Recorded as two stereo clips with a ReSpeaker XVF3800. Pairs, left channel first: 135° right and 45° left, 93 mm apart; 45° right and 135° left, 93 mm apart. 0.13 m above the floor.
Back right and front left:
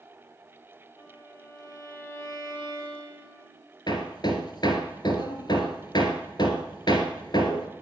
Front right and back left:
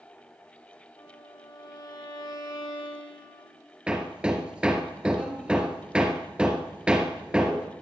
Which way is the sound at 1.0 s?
80° right.